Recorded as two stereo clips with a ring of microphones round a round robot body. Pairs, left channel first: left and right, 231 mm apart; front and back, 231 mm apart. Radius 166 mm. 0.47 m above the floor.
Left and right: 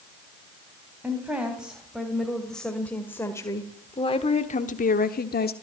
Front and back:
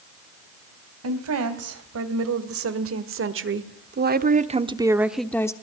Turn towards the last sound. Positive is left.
turn(degrees=70)